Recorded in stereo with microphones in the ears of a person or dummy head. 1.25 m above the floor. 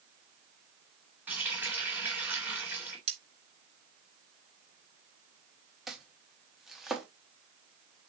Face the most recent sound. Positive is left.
turn(degrees=-5)  # may be behind; listen again after turning